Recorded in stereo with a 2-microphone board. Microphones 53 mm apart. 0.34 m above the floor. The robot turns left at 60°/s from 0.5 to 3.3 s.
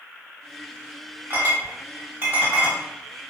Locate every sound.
1.3 s a clink: 45° right (ahead or behind), 1.3 m; by 2.8 s 25° right (ahead or behind), 1.3 m